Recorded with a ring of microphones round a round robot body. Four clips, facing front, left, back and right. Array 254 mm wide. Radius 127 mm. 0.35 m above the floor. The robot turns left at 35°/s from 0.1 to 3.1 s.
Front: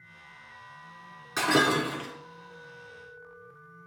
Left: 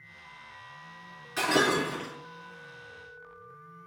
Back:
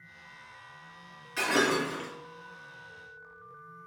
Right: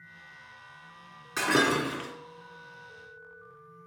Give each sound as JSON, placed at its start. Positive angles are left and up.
{"t": 1.4, "sound": "breaking glass", "azimuth_deg": -30, "distance_m": 2.5}